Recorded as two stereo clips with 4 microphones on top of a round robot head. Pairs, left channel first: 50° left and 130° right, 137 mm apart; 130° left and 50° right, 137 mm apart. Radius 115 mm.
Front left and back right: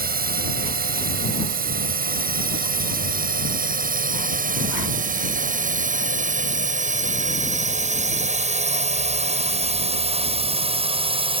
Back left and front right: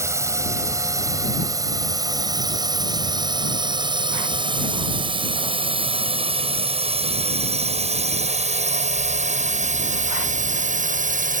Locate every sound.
0.0 s a drone: 120° right; by 11.4 s 80° right